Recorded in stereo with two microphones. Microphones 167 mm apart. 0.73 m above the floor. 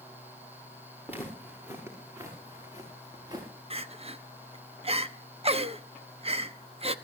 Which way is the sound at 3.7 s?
40° right (ahead or behind).